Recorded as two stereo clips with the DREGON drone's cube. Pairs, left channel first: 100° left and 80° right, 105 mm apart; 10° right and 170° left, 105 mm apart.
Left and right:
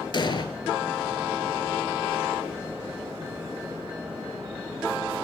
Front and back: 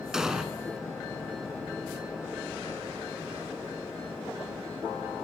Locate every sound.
0.1 s an explosion: 90° left, 0.5 m